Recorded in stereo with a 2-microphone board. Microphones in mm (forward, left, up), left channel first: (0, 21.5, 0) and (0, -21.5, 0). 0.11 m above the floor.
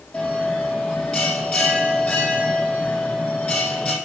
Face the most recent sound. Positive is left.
turn(degrees=20)  # may be behind; listen again after turning